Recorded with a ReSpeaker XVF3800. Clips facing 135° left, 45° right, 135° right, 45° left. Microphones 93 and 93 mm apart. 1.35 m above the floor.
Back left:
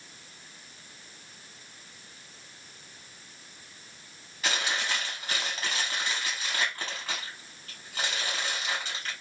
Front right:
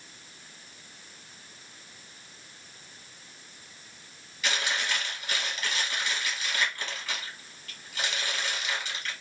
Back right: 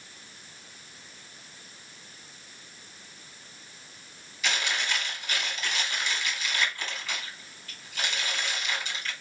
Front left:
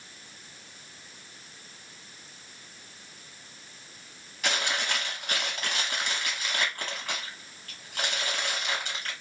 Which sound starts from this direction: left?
Chewing, at 4.4 s.